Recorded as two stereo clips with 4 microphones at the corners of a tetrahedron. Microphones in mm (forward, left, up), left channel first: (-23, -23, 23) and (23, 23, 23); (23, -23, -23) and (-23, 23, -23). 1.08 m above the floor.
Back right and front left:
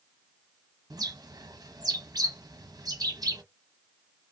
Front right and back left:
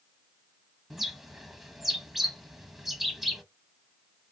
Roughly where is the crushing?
No crushing in this recording.